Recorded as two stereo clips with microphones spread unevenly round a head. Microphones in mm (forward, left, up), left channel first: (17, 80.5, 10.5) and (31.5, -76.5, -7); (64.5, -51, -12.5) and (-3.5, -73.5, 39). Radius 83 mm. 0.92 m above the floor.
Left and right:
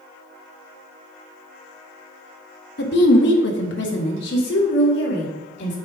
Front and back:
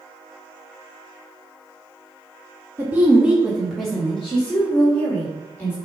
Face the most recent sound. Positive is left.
turn(degrees=80)